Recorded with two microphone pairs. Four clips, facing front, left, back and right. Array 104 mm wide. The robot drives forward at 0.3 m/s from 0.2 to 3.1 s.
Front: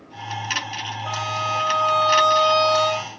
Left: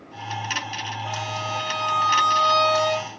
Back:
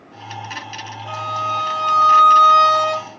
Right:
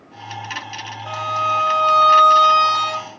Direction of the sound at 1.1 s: 55° right.